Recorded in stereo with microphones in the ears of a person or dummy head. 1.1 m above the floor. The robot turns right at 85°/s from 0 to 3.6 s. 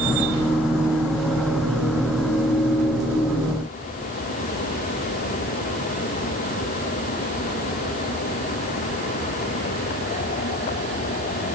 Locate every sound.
Only background noise.